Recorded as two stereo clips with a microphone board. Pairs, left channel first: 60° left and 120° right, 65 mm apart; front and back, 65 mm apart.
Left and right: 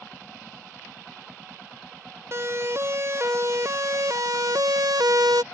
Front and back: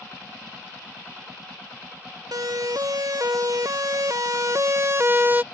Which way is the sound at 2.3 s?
165° right.